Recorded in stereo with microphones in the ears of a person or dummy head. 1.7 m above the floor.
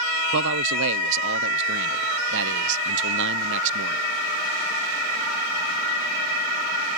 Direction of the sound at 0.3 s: 70° right (ahead or behind).